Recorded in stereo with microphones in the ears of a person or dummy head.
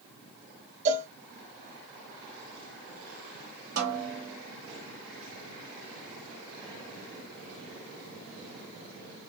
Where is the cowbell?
35° right (ahead or behind), 0.7 m.